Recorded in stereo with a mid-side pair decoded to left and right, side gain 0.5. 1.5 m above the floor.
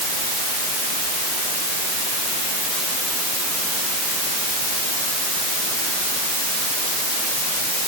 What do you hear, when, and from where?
Only background noise.